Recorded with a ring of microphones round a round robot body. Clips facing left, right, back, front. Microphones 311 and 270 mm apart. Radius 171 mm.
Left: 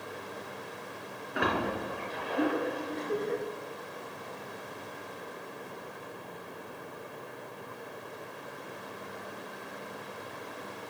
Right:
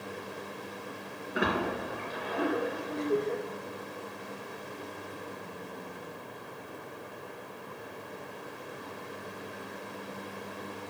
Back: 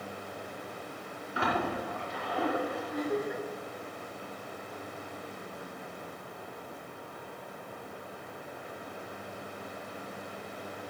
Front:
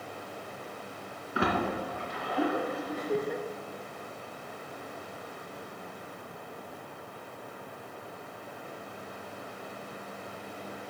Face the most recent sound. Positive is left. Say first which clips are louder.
# right 5 dB, front 1 dB
turn(degrees=25)